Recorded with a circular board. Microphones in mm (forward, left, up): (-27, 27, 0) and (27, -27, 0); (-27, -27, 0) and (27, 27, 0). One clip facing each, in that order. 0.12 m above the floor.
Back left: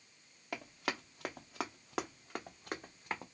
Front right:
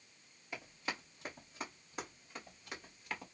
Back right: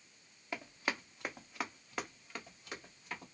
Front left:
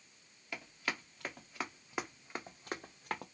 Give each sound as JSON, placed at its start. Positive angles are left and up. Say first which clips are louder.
{"t": 0.5, "sound": "running footsteps", "louder": "back left 4 dB, back right 2 dB", "azimuth_deg": 160, "distance_m": 1.3}